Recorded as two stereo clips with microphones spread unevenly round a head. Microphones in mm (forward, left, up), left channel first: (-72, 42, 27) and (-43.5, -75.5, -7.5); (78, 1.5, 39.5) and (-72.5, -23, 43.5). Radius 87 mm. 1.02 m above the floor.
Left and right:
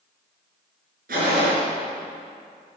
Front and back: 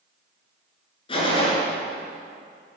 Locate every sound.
1.1 s a gunshot: 45° right, 3.5 m